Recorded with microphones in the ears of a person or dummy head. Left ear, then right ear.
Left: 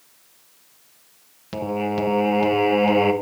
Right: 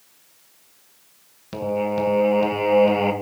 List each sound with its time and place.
1.5 s singing: 5° left (ahead or behind), 1.2 m